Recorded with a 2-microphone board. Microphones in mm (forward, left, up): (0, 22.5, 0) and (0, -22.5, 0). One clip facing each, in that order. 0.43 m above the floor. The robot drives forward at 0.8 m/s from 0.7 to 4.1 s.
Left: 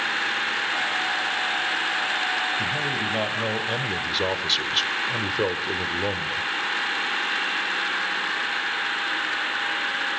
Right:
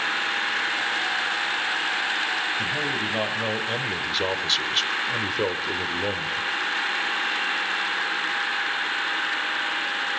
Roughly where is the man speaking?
Centre.